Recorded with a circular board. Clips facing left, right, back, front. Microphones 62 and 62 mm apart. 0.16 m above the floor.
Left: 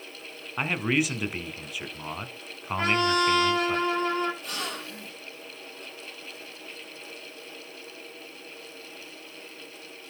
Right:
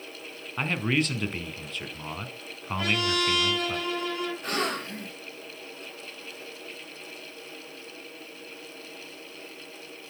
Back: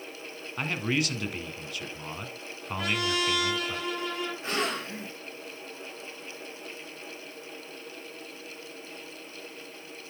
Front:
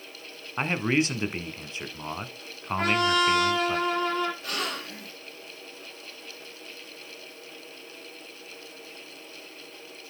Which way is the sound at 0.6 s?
20° left.